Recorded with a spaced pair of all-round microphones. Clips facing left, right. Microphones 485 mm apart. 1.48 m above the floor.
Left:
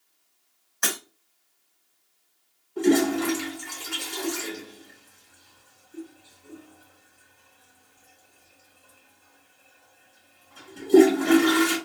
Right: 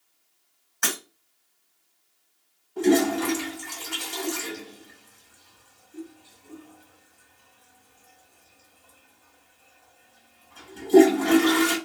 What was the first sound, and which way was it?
Breaking glass, centre (ahead or behind).